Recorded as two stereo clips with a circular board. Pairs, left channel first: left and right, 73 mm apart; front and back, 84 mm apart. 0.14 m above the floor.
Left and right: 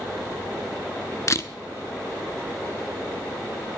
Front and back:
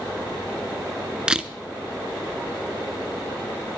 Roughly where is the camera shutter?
Left.